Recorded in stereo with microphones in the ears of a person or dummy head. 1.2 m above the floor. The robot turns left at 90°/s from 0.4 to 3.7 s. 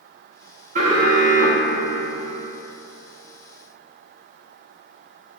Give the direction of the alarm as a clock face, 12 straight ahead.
5 o'clock.